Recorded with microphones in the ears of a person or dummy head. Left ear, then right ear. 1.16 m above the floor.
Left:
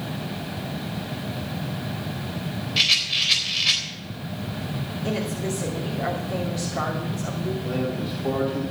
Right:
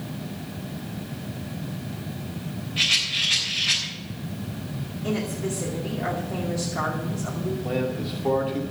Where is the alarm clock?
No alarm clock in this recording.